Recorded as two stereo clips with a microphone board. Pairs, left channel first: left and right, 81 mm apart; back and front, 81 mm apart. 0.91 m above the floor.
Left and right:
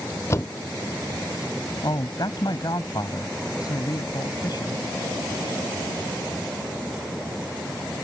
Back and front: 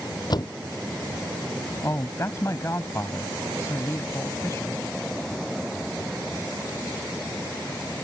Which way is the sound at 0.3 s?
145° left.